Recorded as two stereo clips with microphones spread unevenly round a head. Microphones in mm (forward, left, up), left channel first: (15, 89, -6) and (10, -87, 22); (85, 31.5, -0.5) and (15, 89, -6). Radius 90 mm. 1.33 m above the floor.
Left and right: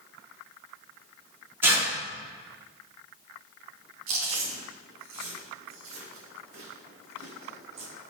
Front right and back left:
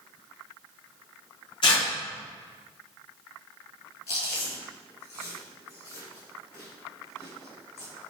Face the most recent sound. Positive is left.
turn(degrees=-80)